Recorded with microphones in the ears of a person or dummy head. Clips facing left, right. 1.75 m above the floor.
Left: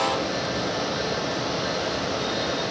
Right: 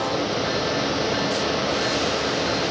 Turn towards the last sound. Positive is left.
No sound to turn to.